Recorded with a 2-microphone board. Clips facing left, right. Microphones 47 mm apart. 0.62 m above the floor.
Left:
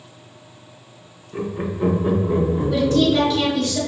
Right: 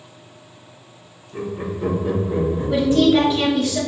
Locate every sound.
1.3 s laughter: 20° left (ahead or behind), 0.8 m; by 3.7 s 60° left (ahead or behind), 1.7 m
2.7 s a woman speaking: 20° right (ahead or behind), 1.2 m